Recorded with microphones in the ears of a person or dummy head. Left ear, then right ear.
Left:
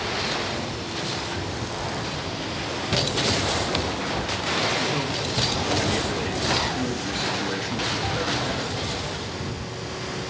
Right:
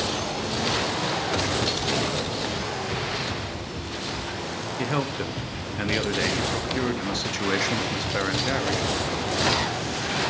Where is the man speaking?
75° right (ahead or behind), 0.5 m.